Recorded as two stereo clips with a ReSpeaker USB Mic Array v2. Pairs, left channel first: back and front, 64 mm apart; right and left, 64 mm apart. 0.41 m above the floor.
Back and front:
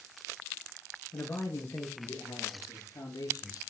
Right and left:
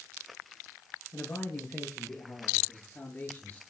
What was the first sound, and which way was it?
A man speaking, 135° right.